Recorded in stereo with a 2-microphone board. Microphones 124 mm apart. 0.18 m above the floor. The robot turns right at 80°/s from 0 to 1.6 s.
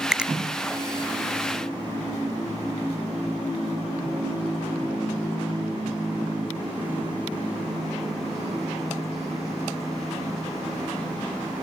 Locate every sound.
0.1 s a finger snap: 5° right (ahead or behind), 0.8 m; by 0.3 s 10° right (ahead or behind), 0.8 m